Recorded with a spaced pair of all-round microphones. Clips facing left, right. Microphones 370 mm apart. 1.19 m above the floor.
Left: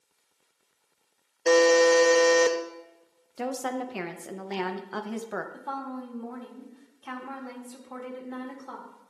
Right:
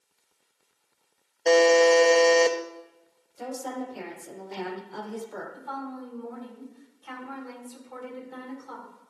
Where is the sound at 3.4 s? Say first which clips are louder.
Left 3 dB; 85° left, 0.8 m.